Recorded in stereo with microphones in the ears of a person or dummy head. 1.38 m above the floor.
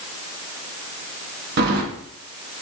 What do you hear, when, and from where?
1.6 s keys jangling: 55° right (ahead or behind), 1.1 m